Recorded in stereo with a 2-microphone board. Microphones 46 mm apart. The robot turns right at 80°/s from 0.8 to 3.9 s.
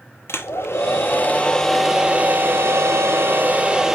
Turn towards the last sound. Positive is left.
turn(degrees=-15)